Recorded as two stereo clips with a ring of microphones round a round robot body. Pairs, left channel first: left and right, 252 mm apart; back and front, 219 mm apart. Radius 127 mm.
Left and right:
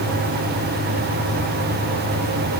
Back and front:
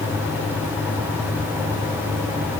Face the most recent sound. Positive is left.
No sound to turn to.